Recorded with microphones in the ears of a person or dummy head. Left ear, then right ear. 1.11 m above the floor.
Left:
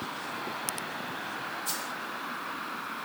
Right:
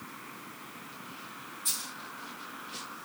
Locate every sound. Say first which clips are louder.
1.6 s a dropped coin: left 2 dB; 45° right (ahead or behind), 3.5 m